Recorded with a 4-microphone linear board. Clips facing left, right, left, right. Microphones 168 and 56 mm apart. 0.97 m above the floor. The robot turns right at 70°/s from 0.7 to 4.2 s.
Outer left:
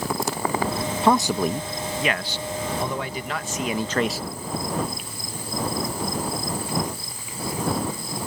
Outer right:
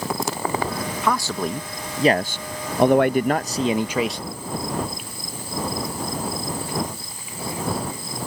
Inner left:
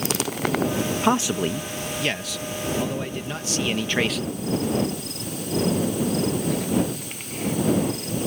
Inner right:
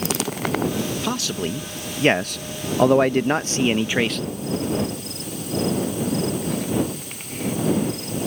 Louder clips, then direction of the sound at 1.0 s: Outer left 5 dB, inner left 4 dB; 145° left.